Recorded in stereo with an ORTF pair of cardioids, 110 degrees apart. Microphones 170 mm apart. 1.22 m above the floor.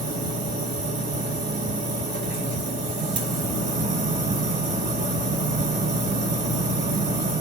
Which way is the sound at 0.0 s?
50° right.